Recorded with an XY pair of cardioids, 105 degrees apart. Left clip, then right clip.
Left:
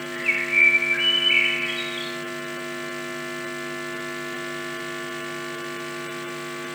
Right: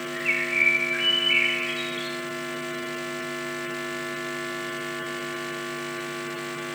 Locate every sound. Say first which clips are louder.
0.1 s a bird: left 3 dB; 35° left, 2 m